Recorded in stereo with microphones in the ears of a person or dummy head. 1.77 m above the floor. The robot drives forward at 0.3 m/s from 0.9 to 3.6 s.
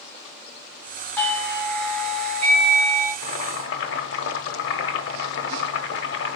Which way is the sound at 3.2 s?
65° left (ahead or behind).